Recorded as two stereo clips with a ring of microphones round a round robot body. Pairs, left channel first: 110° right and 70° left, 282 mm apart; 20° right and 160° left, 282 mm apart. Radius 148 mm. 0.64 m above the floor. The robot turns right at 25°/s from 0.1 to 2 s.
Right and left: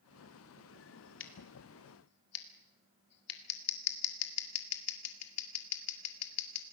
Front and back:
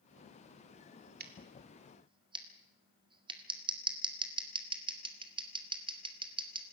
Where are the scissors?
150° right, 2 m; by 6.6 s 130° right, 2 m.